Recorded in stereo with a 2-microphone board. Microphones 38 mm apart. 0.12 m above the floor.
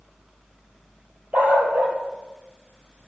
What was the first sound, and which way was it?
A dog barking, 50° right (ahead or behind).